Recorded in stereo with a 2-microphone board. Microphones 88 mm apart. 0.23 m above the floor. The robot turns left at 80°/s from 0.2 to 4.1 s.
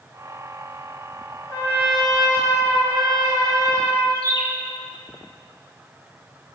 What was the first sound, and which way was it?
A trumpet, 40° left.